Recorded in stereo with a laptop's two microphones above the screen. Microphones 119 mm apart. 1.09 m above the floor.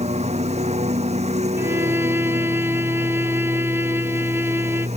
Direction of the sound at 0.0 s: 65° right (ahead or behind).